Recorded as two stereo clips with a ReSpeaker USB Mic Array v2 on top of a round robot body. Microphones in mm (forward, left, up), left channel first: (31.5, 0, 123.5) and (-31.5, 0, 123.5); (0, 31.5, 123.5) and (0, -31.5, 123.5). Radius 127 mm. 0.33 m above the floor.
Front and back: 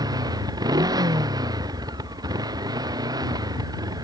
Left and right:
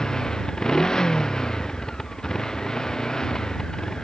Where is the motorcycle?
170° left.